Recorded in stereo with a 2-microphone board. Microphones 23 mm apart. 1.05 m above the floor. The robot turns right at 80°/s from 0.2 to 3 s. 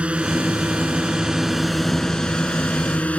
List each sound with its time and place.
0.0 s a drone: 115° right; by 3.2 s 105° left